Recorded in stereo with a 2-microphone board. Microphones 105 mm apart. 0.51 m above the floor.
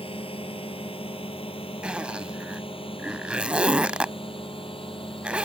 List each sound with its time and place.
0.0 s a drone: 60° left (ahead or behind)
1.8 s a zipper: 10° right (ahead or behind)